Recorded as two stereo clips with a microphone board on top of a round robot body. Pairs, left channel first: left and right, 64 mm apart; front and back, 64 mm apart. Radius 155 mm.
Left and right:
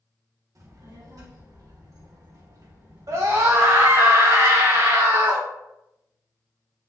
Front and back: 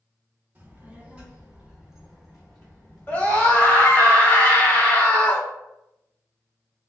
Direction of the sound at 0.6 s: 120° right.